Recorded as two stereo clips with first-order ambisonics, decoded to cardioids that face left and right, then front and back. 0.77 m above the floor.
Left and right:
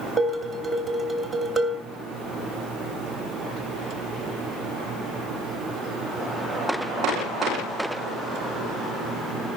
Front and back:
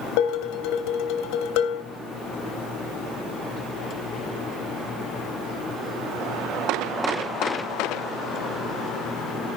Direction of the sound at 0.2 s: Straight ahead.